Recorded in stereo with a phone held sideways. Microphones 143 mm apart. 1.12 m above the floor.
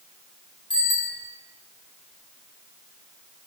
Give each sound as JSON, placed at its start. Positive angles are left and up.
{"t": 0.7, "sound": "a bicycle bell", "side_deg": 35, "distance_m": 7.0}